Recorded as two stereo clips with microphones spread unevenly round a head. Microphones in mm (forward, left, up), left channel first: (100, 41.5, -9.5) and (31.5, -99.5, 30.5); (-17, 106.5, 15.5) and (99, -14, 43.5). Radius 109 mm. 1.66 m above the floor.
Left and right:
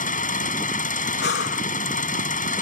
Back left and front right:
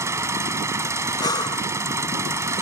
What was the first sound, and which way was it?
An engine running, 25° left.